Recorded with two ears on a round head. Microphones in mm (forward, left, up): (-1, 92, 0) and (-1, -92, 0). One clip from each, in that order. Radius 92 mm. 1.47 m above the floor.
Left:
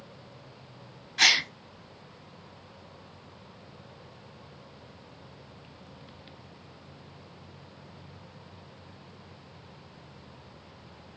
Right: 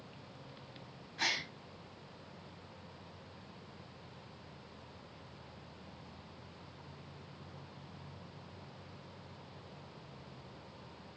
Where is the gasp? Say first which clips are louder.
Left 14 dB; 65° left (ahead or behind), 0.8 m.